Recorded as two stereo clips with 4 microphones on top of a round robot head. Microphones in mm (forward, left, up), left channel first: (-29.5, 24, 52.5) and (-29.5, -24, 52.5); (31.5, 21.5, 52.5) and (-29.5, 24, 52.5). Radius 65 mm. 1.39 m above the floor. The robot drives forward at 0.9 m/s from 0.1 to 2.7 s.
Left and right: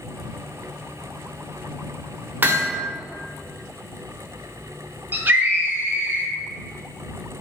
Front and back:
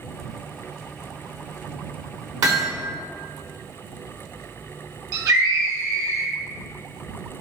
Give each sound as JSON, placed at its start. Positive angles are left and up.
{"t": 2.4, "sound": "hammering", "azimuth_deg": -140, "distance_m": 1.5}
{"t": 5.1, "sound": "a scream", "azimuth_deg": -140, "distance_m": 1.7}